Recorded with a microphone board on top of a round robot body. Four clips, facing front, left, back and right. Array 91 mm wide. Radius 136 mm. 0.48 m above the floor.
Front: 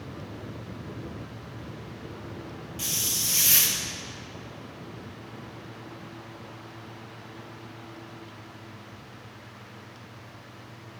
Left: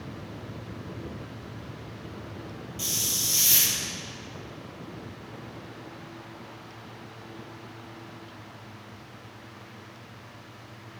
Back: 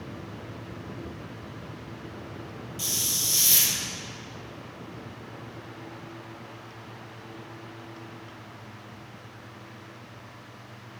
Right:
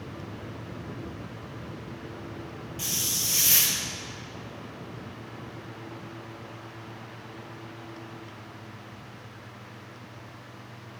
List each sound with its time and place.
2.8 s a hiss: 30° right, 1.5 m